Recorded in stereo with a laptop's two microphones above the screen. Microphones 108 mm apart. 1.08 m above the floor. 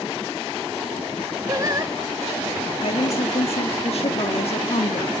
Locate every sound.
1.5 s singing: 30° right (ahead or behind), 1.9 m
2.8 s a woman speaking: 60° left (ahead or behind), 2.0 m